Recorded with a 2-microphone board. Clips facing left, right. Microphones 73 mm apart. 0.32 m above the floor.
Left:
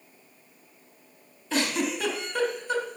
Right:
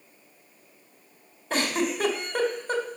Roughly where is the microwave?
No microwave in this recording.